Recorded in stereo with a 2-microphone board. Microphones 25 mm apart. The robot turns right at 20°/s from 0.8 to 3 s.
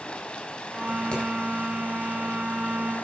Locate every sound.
0.0 s running water: 55° left, 1.6 m; by 3.0 s 95° left, 1.6 m
1.1 s hammering: 40° left (ahead or behind), 5 m